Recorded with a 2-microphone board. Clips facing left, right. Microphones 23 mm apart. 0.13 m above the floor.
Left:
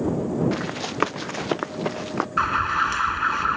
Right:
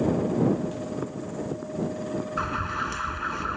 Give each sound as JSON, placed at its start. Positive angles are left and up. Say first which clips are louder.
{"t": 0.5, "sound": "running footsteps", "louder": "left 2 dB", "side_deg": 65}
{"t": 2.4, "sound": "an alarm", "louder": "left 9 dB", "side_deg": 30}